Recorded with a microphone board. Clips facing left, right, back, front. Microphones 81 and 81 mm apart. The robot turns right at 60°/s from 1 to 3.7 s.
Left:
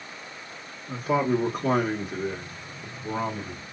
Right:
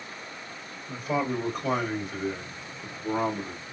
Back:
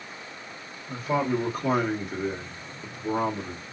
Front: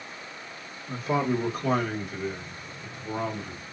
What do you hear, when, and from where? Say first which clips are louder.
0.9 s a man speaking: left 4 dB, even; 55° left, 1.5 m; by 3.6 s 150° right, 1.5 m